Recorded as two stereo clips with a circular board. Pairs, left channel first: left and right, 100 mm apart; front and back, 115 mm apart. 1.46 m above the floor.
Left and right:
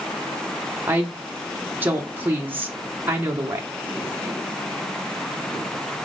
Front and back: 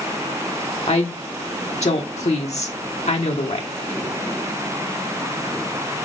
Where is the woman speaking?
20° right, 1.2 m.